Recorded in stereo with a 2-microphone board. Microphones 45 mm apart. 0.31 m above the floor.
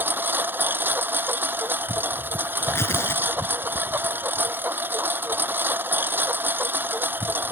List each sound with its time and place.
0.0 s a lawn mower: 50° right (ahead or behind)
2.6 s tearing paper: 75° left (ahead or behind)